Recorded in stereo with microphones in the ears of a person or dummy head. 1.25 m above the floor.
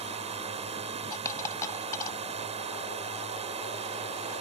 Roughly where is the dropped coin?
Centre.